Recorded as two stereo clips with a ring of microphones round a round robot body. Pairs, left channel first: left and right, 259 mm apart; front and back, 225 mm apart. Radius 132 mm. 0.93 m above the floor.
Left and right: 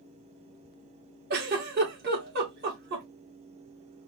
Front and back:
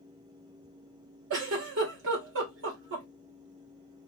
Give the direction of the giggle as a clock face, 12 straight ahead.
5 o'clock.